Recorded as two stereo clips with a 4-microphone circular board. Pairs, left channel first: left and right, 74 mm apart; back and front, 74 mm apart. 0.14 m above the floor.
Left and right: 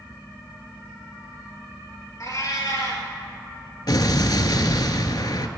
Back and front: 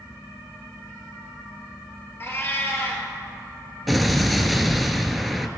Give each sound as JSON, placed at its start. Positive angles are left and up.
{"t": 2.2, "sound": "a cat meowing", "azimuth_deg": 125, "distance_m": 1.5}
{"t": 3.9, "sound": "an explosion", "azimuth_deg": 90, "distance_m": 0.6}